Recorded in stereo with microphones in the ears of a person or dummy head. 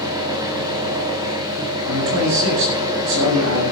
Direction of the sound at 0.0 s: 25° right (ahead or behind).